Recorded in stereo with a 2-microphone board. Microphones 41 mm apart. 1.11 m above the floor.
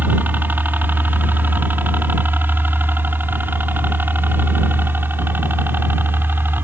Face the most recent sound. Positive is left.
turn(degrees=-55)  # may be behind; listen again after turning